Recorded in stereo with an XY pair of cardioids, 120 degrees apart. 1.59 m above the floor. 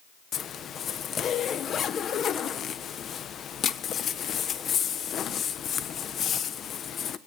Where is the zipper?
45° left, 1.1 m.